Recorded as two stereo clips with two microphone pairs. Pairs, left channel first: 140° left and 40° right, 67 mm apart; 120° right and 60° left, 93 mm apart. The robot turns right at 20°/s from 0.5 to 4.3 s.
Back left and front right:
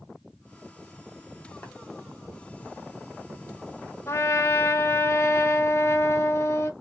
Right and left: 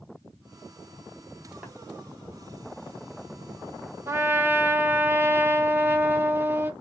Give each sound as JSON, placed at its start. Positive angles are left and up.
{"t": 1.6, "sound": "tapping", "azimuth_deg": 135, "distance_m": 1.3}
{"t": 4.1, "sound": "a trumpet", "azimuth_deg": 110, "distance_m": 0.6}